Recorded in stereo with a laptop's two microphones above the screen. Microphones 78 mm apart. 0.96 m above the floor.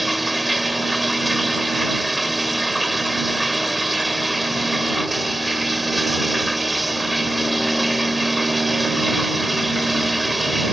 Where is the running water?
5° right (ahead or behind).